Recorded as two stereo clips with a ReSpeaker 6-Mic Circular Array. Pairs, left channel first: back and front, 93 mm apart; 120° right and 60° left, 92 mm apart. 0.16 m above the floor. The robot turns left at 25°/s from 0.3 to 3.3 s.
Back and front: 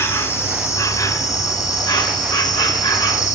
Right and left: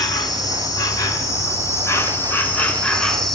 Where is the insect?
130° right, 0.9 m; by 3.4 s 155° left, 0.9 m.